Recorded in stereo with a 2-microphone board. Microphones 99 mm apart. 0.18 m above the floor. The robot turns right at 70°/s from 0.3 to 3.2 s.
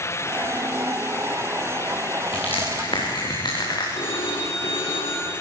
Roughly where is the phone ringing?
Left.